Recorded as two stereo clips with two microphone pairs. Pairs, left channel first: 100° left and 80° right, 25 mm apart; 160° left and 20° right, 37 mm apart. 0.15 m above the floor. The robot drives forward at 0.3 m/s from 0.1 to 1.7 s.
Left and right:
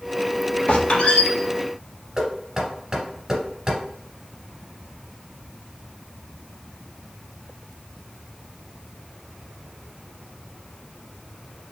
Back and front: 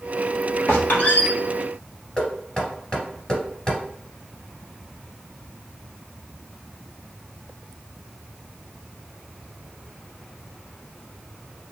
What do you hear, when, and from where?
0.7 s a squeak: 130° left, 1.6 m; by 1.3 s 135° left, 1.7 m
2.2 s knocking: 140° right, 1.8 m